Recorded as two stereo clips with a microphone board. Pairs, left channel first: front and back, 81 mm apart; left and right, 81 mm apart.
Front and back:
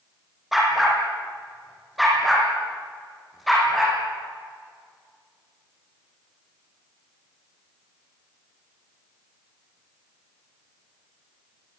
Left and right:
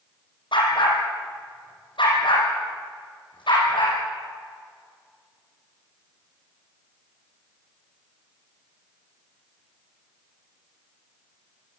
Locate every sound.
0.5 s a dog barking: 90° left, 6 m